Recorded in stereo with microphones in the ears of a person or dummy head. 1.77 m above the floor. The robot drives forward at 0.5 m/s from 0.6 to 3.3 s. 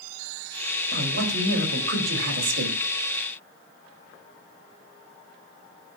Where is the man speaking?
70° right (ahead or behind), 4 m; by 2.8 s 85° right, 4 m.